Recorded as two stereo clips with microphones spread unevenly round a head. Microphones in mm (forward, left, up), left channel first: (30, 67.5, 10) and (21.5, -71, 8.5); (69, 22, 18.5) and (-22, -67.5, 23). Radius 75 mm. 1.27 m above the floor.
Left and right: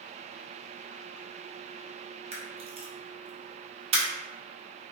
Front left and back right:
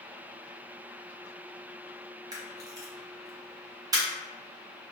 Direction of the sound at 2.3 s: 95° right.